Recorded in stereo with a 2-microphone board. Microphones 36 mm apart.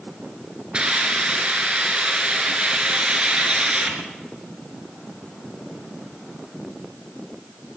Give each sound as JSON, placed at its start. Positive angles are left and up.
{"t": 0.7, "sound": "a hiss", "side_deg": -30, "distance_m": 1.9}